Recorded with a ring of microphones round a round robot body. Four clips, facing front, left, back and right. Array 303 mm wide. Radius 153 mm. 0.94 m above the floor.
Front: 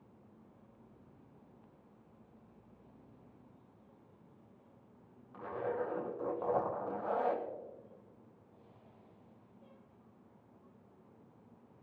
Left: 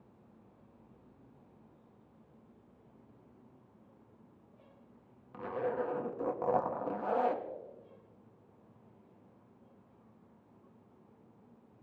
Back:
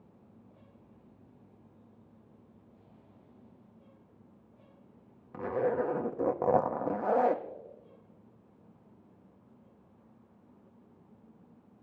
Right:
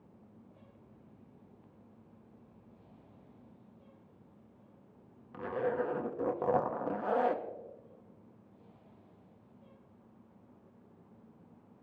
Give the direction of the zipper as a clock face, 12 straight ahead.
6 o'clock.